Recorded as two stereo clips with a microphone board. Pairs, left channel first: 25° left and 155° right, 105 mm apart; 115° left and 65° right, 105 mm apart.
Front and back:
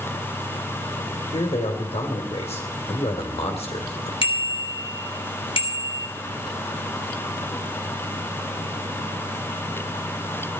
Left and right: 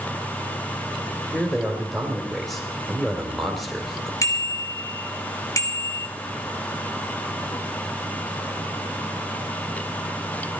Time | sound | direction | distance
1.3 | a man speaking | 25° left | 2.5 m
4.2 | a bicycle bell | 55° left | 3 m